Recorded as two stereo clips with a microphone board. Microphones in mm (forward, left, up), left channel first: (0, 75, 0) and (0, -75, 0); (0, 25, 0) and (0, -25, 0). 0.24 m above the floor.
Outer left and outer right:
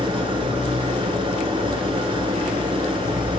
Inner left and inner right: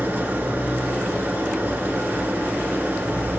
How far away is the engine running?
About 1.4 m.